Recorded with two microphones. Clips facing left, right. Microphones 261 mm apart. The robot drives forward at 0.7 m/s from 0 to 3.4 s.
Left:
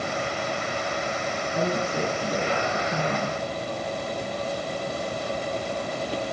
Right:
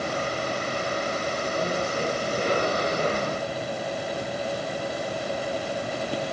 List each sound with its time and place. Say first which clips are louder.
1.5 s a woman speaking: left 3 dB; 65° left (ahead or behind), 3.5 m; by 3.4 s 55° left (ahead or behind), 4 m